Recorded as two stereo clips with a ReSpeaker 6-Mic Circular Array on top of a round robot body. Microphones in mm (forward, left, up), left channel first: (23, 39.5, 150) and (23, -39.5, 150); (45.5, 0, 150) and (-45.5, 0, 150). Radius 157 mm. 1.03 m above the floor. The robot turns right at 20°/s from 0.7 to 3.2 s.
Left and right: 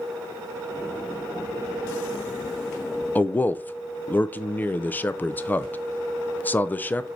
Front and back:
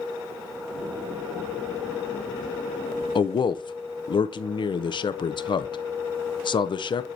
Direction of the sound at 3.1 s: 25° left.